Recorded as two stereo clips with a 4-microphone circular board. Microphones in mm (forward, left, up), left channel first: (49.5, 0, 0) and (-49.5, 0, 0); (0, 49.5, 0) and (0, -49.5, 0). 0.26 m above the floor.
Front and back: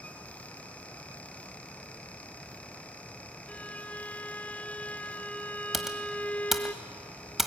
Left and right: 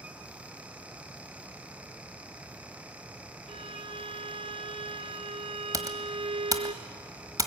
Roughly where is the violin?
Right.